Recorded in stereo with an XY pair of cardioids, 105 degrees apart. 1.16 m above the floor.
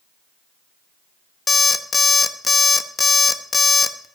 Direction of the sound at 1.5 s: 30° left.